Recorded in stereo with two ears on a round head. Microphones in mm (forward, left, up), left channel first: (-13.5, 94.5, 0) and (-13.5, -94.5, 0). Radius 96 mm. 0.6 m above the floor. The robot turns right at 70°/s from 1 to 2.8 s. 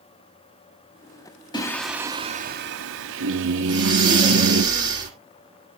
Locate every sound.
1.5 s singing: 160° left, 1.1 m; by 4.7 s 115° right, 1.1 m
3.6 s breathing: 20° right (ahead or behind), 2 m